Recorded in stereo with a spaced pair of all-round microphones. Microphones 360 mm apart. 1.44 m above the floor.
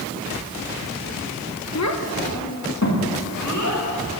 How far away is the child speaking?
About 0.9 m.